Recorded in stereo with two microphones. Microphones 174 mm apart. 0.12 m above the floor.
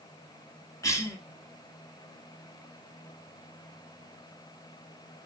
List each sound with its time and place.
0.8 s a cough: 20° left (ahead or behind), 1.2 m